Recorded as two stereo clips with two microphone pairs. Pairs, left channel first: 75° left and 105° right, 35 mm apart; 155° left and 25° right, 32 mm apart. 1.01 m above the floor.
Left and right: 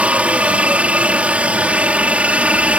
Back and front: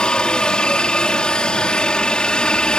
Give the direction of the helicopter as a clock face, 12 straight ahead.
5 o'clock.